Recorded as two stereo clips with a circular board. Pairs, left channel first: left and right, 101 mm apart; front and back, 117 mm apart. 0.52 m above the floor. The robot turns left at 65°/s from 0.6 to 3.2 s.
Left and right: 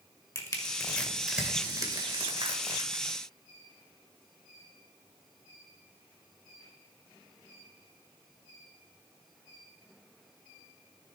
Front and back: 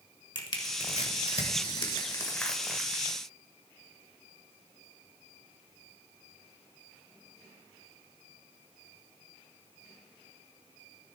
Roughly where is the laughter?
I don't hear laughter.